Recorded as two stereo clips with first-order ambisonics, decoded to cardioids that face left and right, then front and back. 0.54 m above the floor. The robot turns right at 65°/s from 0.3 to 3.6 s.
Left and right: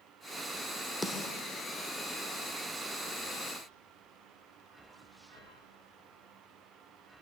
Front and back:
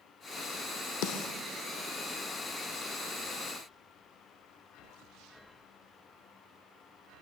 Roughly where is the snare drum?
Ahead.